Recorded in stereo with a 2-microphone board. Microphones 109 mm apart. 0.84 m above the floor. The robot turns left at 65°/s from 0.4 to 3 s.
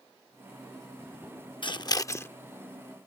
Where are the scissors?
45° left (ahead or behind); by 2.3 s 20° left (ahead or behind).